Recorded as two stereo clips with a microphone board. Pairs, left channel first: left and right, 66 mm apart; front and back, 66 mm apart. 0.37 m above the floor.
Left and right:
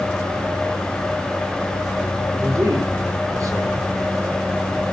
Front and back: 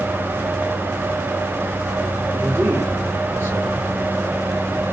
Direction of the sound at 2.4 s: 125° right.